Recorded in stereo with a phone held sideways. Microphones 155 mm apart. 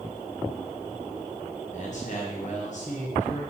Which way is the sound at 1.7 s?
50° left (ahead or behind).